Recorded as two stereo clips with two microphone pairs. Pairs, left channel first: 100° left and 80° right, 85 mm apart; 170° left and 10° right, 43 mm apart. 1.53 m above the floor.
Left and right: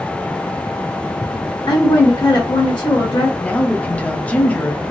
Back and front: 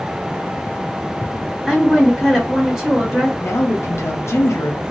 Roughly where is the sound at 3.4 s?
Behind.